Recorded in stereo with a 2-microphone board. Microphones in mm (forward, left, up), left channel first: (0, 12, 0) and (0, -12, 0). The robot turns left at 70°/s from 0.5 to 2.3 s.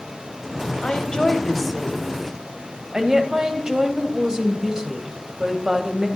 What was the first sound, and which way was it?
A woman speaking, 65° left.